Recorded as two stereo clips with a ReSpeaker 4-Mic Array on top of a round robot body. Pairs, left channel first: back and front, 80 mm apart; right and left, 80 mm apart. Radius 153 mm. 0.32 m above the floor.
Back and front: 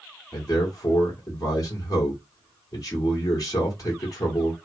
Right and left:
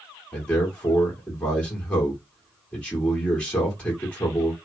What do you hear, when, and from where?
0.3 s a man speaking: 160° right, 1.8 m